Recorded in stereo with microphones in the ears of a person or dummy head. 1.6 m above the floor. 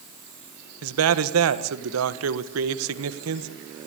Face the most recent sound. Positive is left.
turn(degrees=-90)